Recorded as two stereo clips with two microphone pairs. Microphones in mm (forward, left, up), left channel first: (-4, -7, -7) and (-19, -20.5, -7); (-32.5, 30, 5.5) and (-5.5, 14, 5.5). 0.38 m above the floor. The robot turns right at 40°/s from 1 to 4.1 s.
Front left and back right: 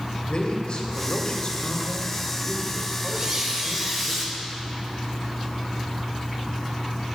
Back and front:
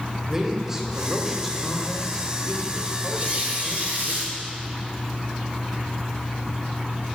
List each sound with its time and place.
0.3 s a man speaking: 40° left, 1.3 m; by 4.1 s 165° left, 1.3 m
3.1 s a squeak: 85° right, 1.8 m; by 4.3 s 45° right, 1.8 m